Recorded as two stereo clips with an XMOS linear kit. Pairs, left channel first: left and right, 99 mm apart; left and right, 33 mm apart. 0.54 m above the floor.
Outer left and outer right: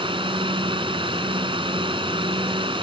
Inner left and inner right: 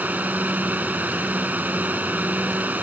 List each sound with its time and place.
0.0 s a drone: 60° right (ahead or behind)